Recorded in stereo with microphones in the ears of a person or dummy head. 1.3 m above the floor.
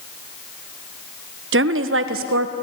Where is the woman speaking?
60° right (ahead or behind), 0.9 m; by 2.5 s 65° right (ahead or behind), 1.5 m.